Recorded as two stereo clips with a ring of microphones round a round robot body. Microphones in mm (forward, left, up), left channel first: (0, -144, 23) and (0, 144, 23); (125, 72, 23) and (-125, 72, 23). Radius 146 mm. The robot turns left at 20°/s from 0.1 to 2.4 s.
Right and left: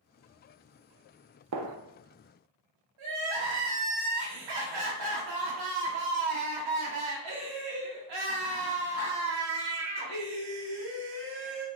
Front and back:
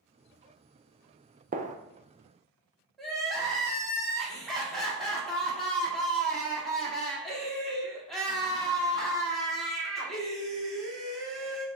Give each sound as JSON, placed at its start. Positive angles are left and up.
{"t": 1.5, "sound": "a gunshot", "azimuth_deg": 125, "distance_m": 0.6}
{"t": 3.0, "sound": "crying", "azimuth_deg": 90, "distance_m": 1.5}